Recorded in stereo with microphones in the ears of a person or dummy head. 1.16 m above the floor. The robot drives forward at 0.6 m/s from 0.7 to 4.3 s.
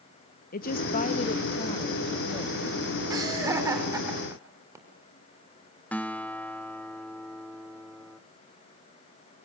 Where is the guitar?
5° left (ahead or behind), 1.0 m.